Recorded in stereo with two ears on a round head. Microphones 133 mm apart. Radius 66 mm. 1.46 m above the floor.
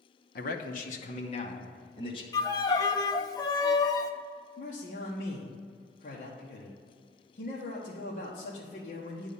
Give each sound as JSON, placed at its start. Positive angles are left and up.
{"t": 0.3, "sound": "a man speaking", "side_deg": 65, "distance_m": 0.9}
{"t": 2.3, "sound": "a violin", "side_deg": 25, "distance_m": 0.5}
{"t": 4.6, "sound": "a man speaking", "side_deg": 55, "distance_m": 1.2}